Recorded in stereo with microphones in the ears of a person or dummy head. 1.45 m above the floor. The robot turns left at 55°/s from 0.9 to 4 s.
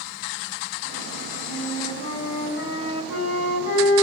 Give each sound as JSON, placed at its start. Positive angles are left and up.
{"t": 1.5, "sound": "a flute", "azimuth_deg": 180, "distance_m": 8.0}